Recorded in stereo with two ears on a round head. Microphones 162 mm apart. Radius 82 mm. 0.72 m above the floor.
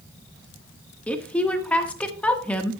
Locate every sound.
1.1 s a woman speaking: 5° left (ahead or behind), 1.1 m